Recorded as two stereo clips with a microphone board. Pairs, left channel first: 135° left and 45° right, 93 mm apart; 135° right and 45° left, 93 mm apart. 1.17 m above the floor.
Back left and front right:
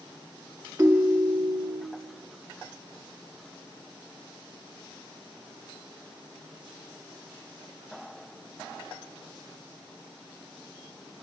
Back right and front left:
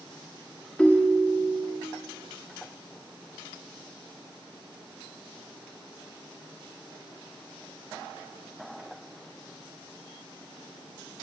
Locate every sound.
0.8 s a ringtone: 70° right, 0.7 m